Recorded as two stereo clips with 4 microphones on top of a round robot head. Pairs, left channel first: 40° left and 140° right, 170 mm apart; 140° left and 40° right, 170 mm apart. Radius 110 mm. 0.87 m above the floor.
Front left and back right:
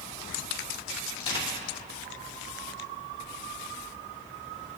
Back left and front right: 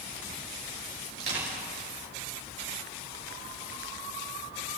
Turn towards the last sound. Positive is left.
turn(degrees=-20)